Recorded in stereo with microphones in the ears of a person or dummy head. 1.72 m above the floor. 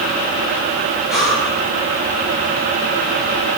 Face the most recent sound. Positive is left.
turn(degrees=-5)  # may be behind; listen again after turning